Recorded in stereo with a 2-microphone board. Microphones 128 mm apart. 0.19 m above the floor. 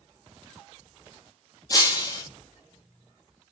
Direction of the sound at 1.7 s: 30° left (ahead or behind).